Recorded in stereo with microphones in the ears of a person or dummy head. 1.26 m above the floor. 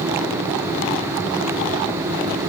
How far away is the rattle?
No rattle in this recording.